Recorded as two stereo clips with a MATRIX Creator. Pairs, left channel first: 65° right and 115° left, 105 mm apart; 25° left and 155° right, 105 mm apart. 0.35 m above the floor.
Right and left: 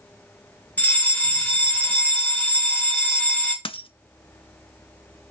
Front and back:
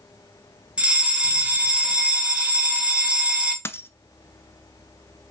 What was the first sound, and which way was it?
A fire alarm, 100° right.